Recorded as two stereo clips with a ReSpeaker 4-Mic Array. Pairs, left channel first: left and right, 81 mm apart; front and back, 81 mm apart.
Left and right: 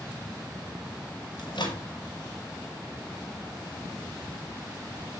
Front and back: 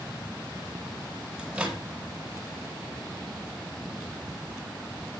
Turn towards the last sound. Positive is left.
turn(degrees=100)